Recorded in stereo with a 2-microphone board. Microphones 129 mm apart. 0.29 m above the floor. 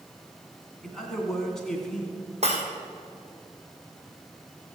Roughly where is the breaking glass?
Right.